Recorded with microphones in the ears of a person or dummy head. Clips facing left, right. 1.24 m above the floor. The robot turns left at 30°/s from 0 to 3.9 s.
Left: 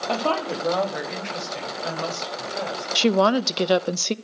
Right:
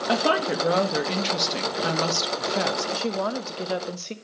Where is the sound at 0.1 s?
5° right, 2 m; by 2.9 s 90° right, 2 m.